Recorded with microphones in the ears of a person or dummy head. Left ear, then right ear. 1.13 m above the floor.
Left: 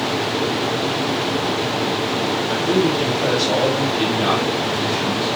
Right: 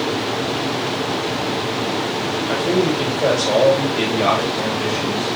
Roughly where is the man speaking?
Right.